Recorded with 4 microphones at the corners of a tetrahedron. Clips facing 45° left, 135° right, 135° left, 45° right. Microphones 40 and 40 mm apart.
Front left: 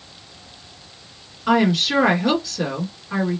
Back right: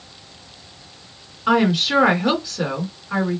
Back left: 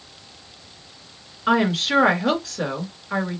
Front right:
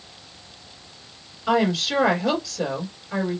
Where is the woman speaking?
150° left, 2 m.